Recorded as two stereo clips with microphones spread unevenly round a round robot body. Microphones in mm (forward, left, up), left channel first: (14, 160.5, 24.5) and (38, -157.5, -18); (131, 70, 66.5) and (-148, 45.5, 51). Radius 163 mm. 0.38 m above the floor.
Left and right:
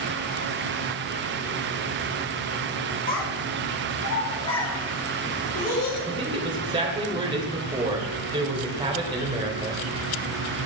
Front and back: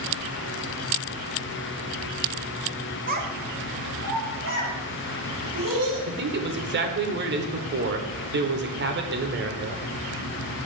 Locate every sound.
3.1 s a child speaking: 155° left, 1.0 m; by 6.0 s 145° left, 3.5 m
6.1 s a man speaking: 150° right, 1.0 m